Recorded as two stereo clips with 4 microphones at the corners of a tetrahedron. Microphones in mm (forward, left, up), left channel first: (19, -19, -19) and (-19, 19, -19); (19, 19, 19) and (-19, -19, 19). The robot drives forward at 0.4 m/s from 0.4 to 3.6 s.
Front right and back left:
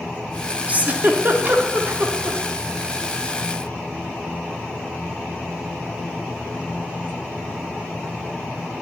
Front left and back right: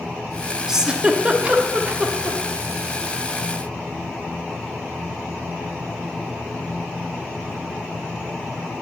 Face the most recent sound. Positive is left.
turn(degrees=175)